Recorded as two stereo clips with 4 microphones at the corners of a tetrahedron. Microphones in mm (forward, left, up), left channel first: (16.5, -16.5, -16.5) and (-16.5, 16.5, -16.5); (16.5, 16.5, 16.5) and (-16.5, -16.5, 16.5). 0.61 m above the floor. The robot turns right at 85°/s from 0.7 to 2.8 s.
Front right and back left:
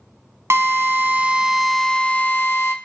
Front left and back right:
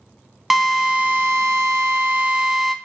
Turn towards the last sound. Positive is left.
turn(degrees=-40)